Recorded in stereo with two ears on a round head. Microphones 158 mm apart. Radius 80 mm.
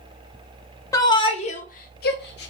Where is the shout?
15° left (ahead or behind), 0.8 m; by 2.5 s 65° left (ahead or behind), 1.0 m.